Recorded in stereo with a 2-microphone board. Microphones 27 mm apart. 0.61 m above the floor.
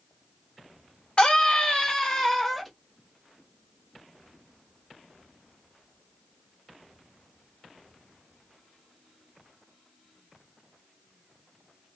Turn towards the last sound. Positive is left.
turn(degrees=5)  # may be behind; listen again after turning